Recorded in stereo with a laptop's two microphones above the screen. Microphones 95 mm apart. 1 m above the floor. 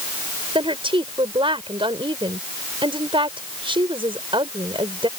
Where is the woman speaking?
65° right (ahead or behind).